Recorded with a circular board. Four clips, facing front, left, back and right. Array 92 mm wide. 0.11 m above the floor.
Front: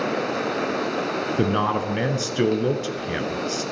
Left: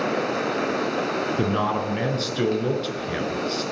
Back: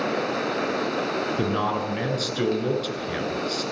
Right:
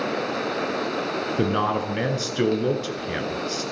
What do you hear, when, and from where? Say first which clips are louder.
1.4 s a man speaking: right 3 dB, front 5 dB; 30° right, 1.8 m